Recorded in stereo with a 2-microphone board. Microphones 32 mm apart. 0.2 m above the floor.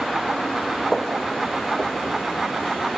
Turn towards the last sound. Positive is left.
turn(degrees=35)  # may be behind; listen again after turning